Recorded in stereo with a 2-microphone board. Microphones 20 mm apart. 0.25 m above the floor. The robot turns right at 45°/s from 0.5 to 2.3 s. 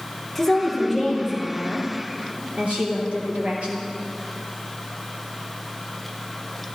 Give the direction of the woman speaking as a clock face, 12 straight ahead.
6 o'clock.